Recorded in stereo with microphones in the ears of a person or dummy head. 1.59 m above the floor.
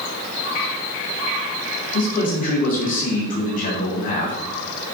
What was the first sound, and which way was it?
A man speaking, 40° left (ahead or behind).